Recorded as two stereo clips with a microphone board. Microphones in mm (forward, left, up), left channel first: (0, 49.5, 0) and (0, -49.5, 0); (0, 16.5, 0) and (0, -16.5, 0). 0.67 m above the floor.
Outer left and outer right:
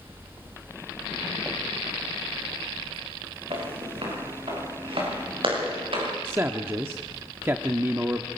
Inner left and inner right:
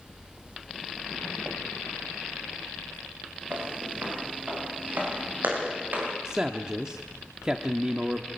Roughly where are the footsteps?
Right.